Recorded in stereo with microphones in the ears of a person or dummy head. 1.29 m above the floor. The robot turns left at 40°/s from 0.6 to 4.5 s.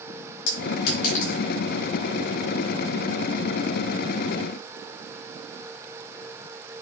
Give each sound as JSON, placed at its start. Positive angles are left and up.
{"t": 0.5, "sound": "a clink", "side_deg": 70, "distance_m": 6.5}